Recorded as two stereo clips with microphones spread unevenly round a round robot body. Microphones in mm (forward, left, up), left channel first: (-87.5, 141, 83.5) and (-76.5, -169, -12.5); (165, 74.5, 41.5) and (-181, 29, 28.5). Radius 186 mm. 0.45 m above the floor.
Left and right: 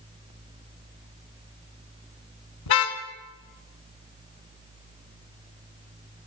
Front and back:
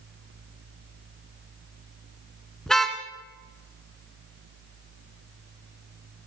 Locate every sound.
2.7 s a car horn: 95° left, 2.5 m